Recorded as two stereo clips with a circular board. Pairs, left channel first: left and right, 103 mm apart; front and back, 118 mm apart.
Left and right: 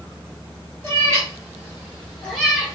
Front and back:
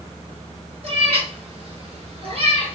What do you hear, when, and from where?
0.8 s a cat meowing: 150° left, 1.8 m; by 2.8 s 175° right, 1.0 m